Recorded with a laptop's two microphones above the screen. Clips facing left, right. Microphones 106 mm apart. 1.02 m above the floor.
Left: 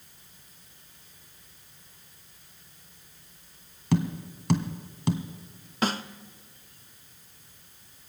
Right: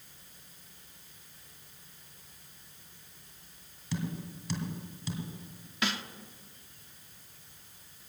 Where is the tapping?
60° left (ahead or behind), 1.8 m.